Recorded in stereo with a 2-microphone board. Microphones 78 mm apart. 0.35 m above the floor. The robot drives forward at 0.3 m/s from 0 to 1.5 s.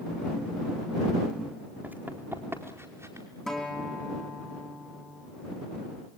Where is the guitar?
5° left (ahead or behind), 4.5 m.